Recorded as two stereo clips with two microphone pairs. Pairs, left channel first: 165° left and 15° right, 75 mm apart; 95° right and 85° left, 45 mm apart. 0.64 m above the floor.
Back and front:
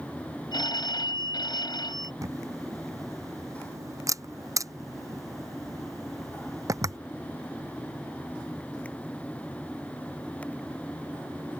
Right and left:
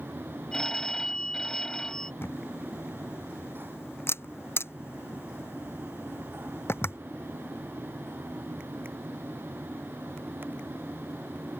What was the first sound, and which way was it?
A phone ringing, 170° right.